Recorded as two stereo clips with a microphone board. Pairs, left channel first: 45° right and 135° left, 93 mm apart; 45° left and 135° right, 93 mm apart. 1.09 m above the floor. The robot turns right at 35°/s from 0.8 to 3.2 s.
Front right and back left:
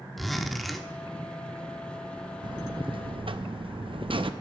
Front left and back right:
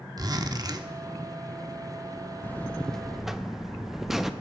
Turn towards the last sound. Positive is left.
turn(degrees=140)